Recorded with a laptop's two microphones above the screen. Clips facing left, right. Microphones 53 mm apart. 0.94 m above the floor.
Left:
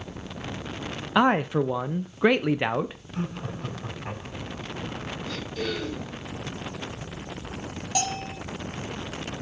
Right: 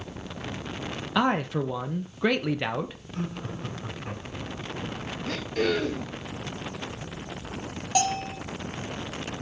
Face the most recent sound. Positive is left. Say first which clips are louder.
# right 4 dB
turn(degrees=-15)  # may be behind; listen again after turning